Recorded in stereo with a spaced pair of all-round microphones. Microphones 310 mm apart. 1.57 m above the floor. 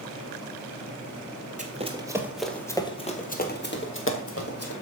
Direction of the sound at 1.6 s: 25° right (ahead or behind).